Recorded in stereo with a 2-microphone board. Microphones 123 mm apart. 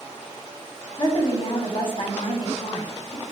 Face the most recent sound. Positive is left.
turn(degrees=45)  # may be behind; listen again after turning